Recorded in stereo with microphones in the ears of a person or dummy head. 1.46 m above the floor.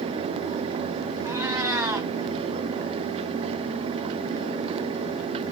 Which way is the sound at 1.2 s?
10° right (ahead or behind).